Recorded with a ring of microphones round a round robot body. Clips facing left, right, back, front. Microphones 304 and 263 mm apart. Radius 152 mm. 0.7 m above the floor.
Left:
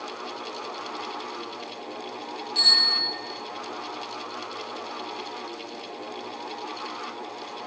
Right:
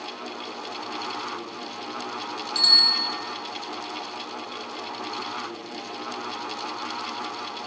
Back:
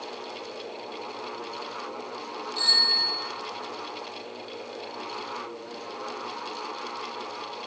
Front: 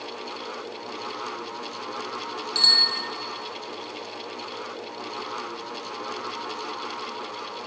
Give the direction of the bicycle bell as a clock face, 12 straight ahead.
1 o'clock.